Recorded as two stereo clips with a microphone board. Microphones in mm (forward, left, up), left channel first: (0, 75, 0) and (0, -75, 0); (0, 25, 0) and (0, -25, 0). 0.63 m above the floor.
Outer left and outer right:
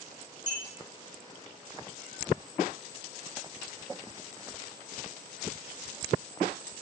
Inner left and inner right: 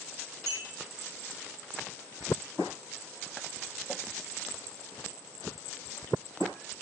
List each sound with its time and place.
0.5 s a clink: 60° right (ahead or behind), 4 m